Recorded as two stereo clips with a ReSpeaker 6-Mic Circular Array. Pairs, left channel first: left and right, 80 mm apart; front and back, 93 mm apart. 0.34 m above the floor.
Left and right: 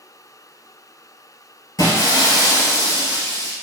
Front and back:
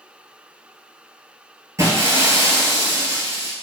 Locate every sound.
1.8 s breaking glass: 125° left, 0.9 m